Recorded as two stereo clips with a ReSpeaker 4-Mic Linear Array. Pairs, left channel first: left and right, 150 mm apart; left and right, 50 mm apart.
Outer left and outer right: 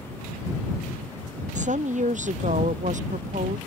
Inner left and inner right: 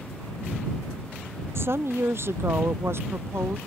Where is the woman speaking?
55° right (ahead or behind).